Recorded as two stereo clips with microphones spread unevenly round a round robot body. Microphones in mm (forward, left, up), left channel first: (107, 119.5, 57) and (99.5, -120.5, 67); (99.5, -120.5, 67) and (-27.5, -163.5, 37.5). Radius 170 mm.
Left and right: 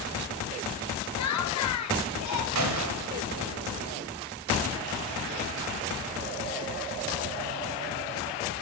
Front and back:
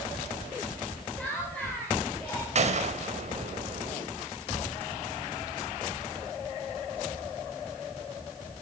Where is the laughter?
105° left, 3.5 m.